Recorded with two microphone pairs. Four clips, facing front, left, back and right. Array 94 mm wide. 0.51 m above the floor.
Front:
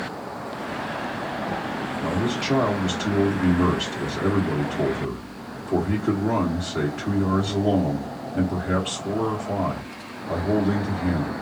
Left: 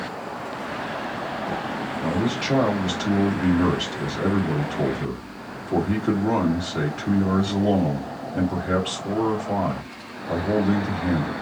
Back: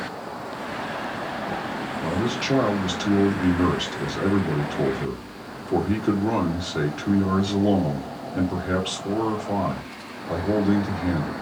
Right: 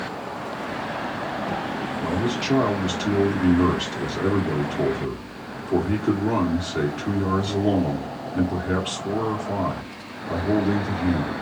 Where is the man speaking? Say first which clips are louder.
Left 1 dB, even; 175° left, 1.2 m.